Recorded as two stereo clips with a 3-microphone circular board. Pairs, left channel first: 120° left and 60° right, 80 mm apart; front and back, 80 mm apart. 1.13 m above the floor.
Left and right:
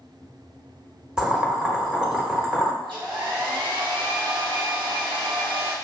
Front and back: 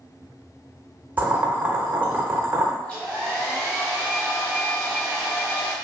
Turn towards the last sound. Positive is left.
turn(degrees=-75)